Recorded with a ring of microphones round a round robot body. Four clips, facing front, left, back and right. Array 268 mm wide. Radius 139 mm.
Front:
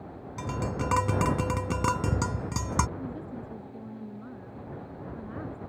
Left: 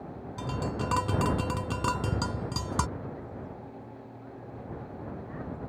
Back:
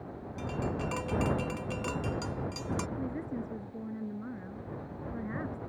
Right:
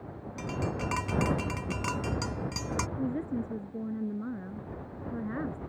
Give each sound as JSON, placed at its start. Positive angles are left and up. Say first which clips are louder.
{"t": 0.4, "sound": "tapping", "louder": "left 1 dB, front 3 dB", "azimuth_deg": 20}
{"t": 3.0, "sound": "a woman speaking", "louder": "right 8 dB, back 1 dB", "azimuth_deg": -100}